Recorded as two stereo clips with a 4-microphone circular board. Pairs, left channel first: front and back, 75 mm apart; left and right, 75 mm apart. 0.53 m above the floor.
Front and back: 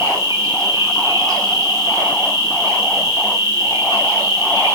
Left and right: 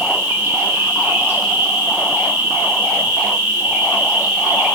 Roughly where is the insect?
Behind right.